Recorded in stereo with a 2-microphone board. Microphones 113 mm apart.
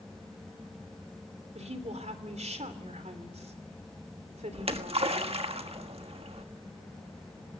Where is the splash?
60° right (ahead or behind), 1.4 m.